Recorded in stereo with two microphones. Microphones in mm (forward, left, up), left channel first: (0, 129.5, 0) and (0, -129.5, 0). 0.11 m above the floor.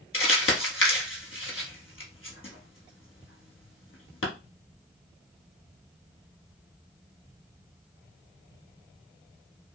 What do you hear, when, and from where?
0.1 s crumpling: 55° left (ahead or behind), 1.1 m